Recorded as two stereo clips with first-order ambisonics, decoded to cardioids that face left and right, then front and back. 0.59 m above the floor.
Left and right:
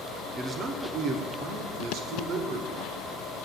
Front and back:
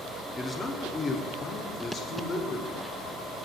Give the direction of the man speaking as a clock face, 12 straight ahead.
2 o'clock.